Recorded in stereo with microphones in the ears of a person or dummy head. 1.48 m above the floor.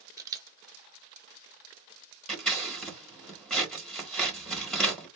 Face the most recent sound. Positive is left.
turn(degrees=5)  # may be behind; listen again after turning